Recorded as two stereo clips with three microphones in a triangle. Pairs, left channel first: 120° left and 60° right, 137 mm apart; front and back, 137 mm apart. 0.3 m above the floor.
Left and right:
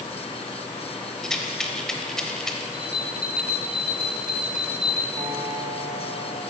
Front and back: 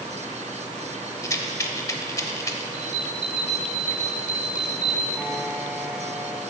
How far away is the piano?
About 1.2 m.